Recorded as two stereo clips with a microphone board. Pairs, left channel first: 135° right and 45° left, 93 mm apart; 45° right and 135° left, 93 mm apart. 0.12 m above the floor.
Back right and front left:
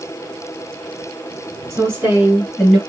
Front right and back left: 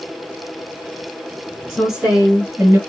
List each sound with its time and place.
1.7 s a woman speaking: 45° left, 1.8 m; by 2.8 s 140° left, 1.8 m